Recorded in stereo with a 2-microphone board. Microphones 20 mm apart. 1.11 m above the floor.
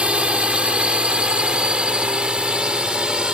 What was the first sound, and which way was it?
A drone, 60° right (ahead or behind).